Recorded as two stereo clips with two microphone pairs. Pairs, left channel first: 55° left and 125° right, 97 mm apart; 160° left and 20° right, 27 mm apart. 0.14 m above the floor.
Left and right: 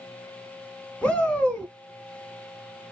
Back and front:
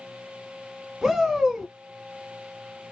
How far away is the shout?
About 1.1 m.